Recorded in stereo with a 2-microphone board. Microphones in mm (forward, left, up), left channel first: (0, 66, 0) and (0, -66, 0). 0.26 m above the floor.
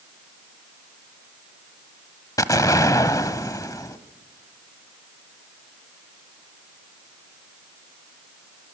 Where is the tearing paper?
No tearing paper in this recording.